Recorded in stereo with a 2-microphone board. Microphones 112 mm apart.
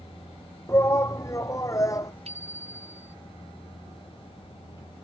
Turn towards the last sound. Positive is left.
turn(degrees=-70)  # may be behind; listen again after turning